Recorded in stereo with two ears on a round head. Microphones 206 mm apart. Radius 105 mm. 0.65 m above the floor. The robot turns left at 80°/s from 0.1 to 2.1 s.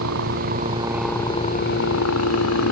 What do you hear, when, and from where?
0.0 s a helicopter: 70° right (ahead or behind); by 2.7 s 80° left